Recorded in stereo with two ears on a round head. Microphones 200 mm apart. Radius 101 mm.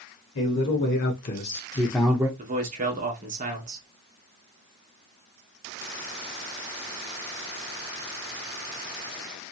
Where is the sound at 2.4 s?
35° right (ahead or behind), 1.1 m.